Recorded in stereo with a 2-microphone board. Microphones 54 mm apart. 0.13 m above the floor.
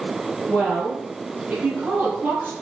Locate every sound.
0.5 s a woman speaking: 20° right (ahead or behind), 3.5 m; by 2.5 s 40° right (ahead or behind), 4 m